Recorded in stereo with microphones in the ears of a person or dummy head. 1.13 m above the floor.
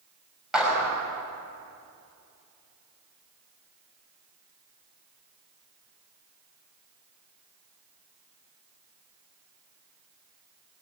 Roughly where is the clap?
Centre.